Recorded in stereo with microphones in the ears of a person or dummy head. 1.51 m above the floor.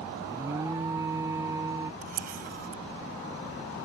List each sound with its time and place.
0.2 s an alarm: 15° right (ahead or behind)
2.0 s a camera shutter: 50° right (ahead or behind)